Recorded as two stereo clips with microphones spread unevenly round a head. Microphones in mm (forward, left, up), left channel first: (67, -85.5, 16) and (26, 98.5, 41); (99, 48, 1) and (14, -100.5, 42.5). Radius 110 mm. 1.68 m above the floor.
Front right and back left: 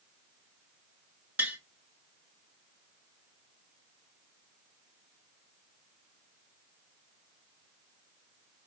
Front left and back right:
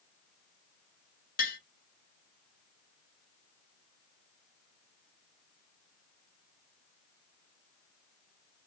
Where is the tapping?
30° left, 1.0 m.